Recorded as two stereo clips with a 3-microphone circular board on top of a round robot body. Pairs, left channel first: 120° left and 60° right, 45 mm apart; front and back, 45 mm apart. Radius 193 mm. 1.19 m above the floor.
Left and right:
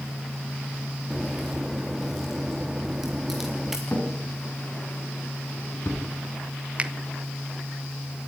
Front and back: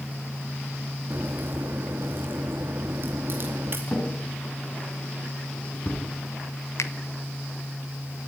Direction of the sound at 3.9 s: 70° left.